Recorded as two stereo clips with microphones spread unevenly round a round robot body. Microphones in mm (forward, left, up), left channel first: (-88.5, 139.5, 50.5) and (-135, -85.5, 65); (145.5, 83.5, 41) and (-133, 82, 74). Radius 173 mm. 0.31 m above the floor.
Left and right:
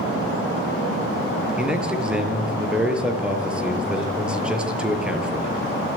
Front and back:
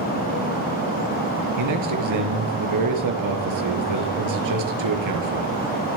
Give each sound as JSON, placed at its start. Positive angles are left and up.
{"t": 1.6, "sound": "a man speaking", "azimuth_deg": 170, "distance_m": 6.0}